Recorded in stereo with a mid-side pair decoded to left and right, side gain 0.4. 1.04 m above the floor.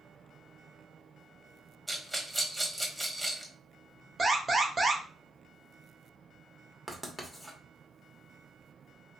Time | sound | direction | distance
1.9 | a rattle | 10° right | 1.2 m
4.2 | an alarm | 40° right | 1.0 m
6.9 | writing | straight ahead | 1.1 m